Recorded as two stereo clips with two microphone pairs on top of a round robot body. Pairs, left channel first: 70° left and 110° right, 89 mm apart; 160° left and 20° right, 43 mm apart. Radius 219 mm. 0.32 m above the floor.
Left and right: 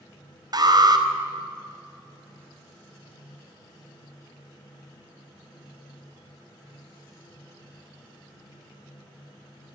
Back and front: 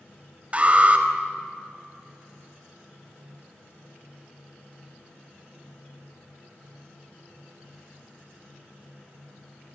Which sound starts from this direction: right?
An alarm, at 0.5 s.